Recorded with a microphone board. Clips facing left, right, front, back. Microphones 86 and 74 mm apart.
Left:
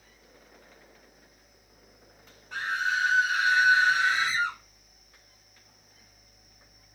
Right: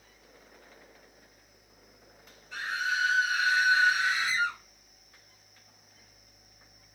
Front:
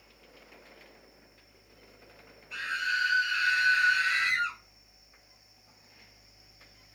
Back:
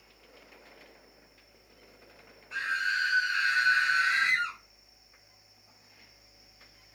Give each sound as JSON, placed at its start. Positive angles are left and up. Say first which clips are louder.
{"t": 2.5, "sound": "a scream", "louder": "left 3 dB, back 1 dB", "azimuth_deg": 120, "distance_m": 1.5}